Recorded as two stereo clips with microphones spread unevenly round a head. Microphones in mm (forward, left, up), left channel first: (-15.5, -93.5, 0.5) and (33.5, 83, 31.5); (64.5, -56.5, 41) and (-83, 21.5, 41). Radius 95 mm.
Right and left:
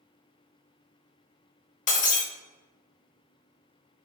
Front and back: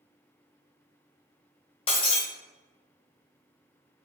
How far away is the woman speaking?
I don't hear a woman speaking.